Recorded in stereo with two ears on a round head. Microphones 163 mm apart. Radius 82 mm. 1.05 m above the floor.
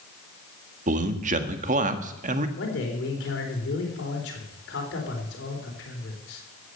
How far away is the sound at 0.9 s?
About 1.5 m.